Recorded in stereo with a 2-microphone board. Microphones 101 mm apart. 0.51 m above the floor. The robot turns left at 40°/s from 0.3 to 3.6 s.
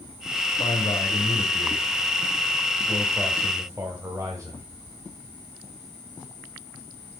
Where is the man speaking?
85° left, 2 m; by 4.6 s 35° right, 2 m.